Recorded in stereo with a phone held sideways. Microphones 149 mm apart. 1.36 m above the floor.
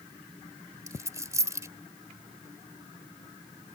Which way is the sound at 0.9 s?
20° right (ahead or behind).